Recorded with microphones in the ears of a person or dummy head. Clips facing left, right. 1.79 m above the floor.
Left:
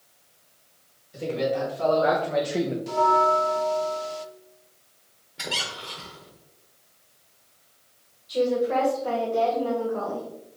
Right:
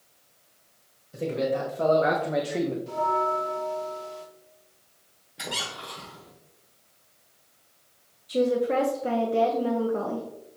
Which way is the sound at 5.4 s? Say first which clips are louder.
Left 1 dB; centre (ahead or behind).